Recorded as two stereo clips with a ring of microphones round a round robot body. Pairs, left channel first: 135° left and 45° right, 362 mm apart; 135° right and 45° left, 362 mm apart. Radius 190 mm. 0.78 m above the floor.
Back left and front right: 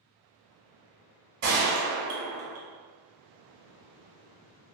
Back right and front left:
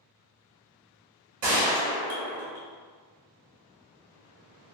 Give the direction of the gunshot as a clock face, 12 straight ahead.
12 o'clock.